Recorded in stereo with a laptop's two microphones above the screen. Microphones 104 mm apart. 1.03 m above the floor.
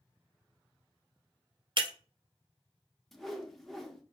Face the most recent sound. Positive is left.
turn(degrees=0)  # may be behind; listen again after turning